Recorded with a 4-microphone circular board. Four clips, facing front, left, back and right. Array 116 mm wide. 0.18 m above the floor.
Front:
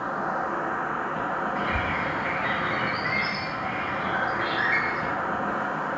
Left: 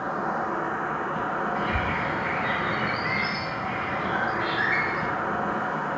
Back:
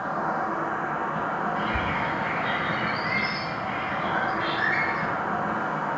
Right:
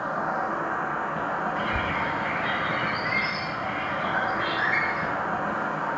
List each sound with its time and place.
0.0 s an insect: 150° right, 1.5 m
1.6 s a bird: 45° left, 1.4 m